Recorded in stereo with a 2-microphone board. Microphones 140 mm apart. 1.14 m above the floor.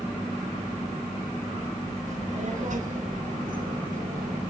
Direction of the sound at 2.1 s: 60° right (ahead or behind).